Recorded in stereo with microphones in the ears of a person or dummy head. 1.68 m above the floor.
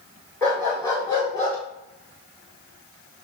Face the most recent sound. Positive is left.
turn(degrees=25)  # may be behind; listen again after turning